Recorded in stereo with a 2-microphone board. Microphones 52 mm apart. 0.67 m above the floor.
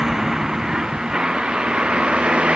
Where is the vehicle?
10° right (ahead or behind); by 2.6 s 20° right (ahead or behind).